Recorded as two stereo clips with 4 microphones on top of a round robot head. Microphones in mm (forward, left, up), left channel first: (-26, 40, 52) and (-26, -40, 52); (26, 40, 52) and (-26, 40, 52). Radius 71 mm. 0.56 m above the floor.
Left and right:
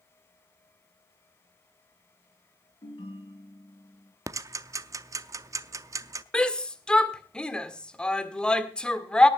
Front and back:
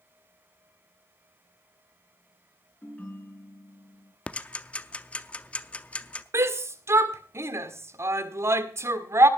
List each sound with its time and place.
2.8 s a ringtone: 60° left, 4.5 m
4.3 s ticking: 60° right, 0.6 m
6.3 s a shout: 170° left, 1.7 m